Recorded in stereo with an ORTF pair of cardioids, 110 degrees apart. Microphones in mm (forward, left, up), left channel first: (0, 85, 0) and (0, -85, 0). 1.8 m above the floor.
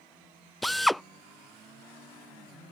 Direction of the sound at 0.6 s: Straight ahead.